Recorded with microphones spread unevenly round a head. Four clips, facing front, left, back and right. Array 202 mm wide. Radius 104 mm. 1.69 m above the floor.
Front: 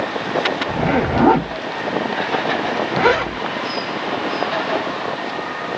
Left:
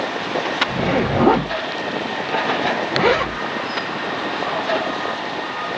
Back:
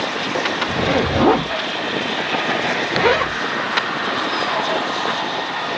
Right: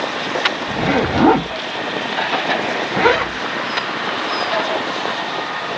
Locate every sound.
0.7 s a zipper: 45° right, 1.4 m